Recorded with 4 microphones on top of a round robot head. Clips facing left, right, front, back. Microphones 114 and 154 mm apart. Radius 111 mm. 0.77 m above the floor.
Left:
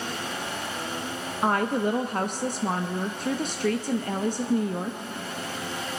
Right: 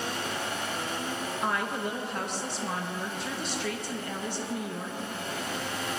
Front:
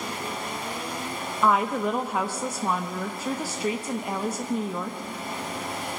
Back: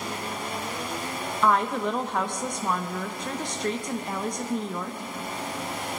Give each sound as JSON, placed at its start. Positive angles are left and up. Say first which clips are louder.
{"t": 1.4, "sound": "a woman speaking", "louder": "left 8 dB, front 1 dB", "azimuth_deg": 85, "distance_m": 0.7}